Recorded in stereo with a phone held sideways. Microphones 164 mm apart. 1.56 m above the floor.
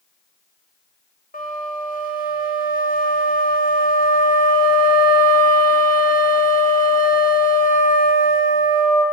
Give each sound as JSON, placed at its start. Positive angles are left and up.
{"t": 1.3, "sound": "a flute", "side_deg": 65, "distance_m": 1.1}